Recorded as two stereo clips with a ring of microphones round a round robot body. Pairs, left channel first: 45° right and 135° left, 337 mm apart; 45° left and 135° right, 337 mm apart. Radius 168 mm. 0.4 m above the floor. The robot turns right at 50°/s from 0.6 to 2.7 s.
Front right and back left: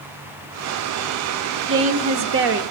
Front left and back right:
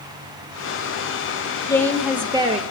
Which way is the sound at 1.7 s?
120° left.